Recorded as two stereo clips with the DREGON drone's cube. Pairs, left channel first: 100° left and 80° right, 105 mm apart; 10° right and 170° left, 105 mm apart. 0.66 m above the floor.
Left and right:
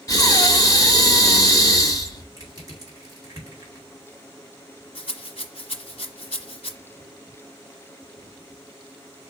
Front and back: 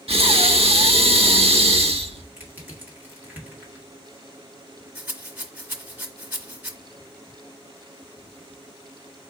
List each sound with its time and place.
0.1 s breathing: 155° left, 0.7 m
2.4 s crushing: 120° right, 1.8 m
5.0 s a rattle: 100° left, 0.8 m